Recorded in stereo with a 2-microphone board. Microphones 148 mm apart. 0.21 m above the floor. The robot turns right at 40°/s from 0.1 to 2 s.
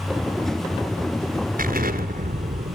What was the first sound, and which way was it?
An explosion, 70° right (ahead or behind).